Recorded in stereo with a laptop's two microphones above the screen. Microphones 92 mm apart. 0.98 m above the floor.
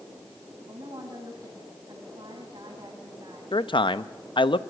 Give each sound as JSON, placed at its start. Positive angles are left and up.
{"t": 0.7, "sound": "a woman speaking", "side_deg": -50, "distance_m": 8.0}
{"t": 3.5, "sound": "a man speaking", "side_deg": 60, "distance_m": 0.7}